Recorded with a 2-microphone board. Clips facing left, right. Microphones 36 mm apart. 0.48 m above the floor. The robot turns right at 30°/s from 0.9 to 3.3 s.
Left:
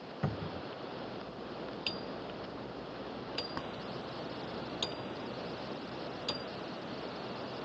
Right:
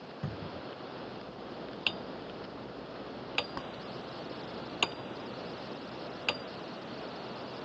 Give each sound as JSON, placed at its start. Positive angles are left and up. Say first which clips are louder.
{"t": 0.2, "sound": "a cupboard door", "louder": "left 3 dB", "side_deg": 85}
{"t": 1.9, "sound": "hammering", "louder": "right 7 dB", "side_deg": -45}